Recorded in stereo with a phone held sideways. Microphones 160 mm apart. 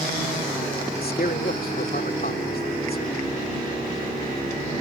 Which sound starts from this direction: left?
A man speaking, at 1.0 s.